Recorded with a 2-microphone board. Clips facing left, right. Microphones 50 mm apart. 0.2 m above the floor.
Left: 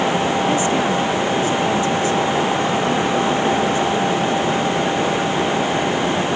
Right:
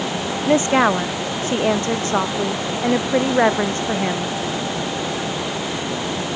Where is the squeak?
No squeak in this recording.